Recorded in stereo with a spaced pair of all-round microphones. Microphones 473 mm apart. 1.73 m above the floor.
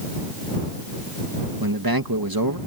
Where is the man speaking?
45° right (ahead or behind).